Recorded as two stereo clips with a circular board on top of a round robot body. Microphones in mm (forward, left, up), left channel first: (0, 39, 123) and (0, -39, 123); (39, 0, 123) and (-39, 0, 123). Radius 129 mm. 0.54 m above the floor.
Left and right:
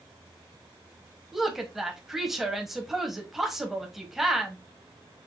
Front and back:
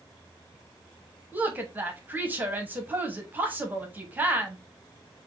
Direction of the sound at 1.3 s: 170° right.